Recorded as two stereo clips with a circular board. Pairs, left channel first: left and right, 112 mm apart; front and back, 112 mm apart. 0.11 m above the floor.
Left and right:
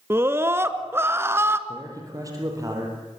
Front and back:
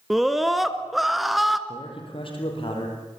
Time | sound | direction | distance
0.1 | a scream | 95° right | 1.1 m
1.7 | a man speaking | 35° right | 4.5 m